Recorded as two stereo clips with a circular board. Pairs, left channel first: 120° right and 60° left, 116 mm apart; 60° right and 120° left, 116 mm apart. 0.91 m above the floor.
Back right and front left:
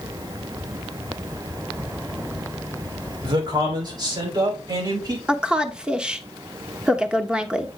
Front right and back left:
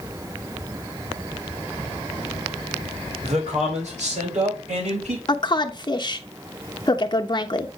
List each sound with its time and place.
3.2 s a man speaking: 110° left, 3 m; by 5.2 s 115° left, 5 m
5.3 s a woman speaking: 20° right, 1.0 m